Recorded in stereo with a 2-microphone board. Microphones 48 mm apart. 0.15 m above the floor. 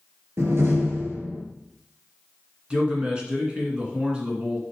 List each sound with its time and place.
0.4 s a door slam: 60° right (ahead or behind), 2 m
2.7 s a man speaking: 20° right (ahead or behind), 2.0 m